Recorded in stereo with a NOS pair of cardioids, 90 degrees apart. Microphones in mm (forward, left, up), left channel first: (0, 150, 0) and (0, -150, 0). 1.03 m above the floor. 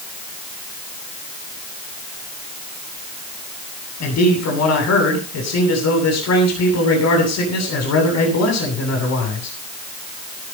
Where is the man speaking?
60° left, 8 m.